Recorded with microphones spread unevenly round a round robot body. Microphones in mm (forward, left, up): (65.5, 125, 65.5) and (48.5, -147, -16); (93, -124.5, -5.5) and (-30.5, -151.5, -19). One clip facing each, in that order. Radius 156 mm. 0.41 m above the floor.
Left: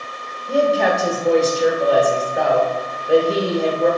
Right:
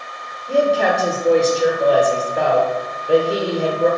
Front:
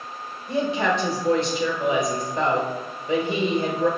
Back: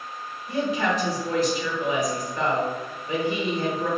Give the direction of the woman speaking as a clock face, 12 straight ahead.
1 o'clock.